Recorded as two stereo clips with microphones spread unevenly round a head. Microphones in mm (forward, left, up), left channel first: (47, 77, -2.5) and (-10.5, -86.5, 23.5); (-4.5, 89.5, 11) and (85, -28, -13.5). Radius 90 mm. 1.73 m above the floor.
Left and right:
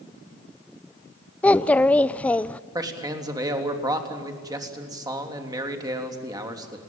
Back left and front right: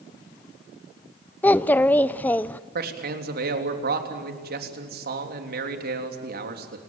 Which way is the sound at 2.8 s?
40° right.